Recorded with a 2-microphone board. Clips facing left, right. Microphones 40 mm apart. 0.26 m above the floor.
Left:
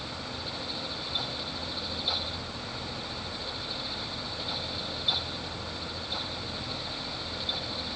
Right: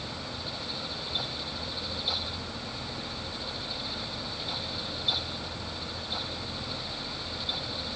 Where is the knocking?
No knocking in this recording.